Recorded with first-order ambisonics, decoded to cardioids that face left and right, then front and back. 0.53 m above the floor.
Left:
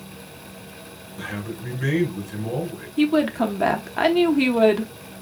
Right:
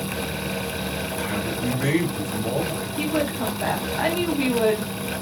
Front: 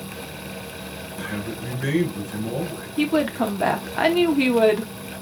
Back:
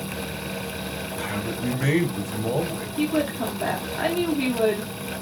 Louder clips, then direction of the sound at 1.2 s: Right 1 dB, back 1 dB; 145° right.